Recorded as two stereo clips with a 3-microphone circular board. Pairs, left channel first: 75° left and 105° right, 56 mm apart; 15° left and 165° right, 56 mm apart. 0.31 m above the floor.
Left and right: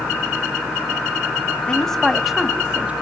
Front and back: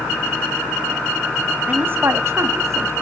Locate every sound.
1.7 s a woman speaking: 145° left, 2.5 m; by 2.9 s 170° right, 2.5 m